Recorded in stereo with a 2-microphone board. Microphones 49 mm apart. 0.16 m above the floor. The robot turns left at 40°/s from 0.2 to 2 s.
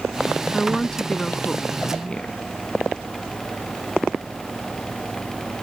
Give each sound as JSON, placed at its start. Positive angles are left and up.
{"t": 0.5, "sound": "a woman speaking", "side_deg": 10}